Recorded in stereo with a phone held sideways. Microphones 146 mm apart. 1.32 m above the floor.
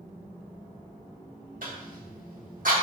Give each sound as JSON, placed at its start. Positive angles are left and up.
{"t": 1.6, "sound": "a cough", "side_deg": -70, "distance_m": 2.5}